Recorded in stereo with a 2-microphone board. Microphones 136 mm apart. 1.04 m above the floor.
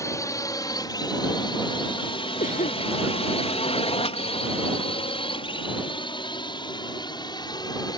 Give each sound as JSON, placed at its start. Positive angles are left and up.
{"t": 0.0, "sound": "a drone", "side_deg": 25}
{"t": 2.4, "sound": "a cough", "side_deg": 75}